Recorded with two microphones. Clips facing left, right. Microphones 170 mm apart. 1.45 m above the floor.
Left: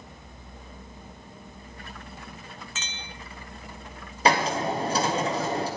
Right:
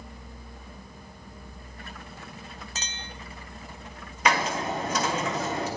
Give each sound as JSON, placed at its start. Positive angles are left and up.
{"t": 2.8, "sound": "a clink", "side_deg": -40, "distance_m": 0.8}
{"t": 4.2, "sound": "a hiss", "side_deg": 35, "distance_m": 1.8}